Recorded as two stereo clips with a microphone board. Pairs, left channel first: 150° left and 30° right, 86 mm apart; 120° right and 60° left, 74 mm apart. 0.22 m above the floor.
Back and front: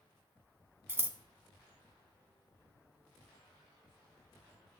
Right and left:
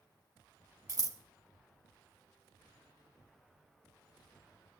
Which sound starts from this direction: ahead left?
Scissors, at 0.9 s.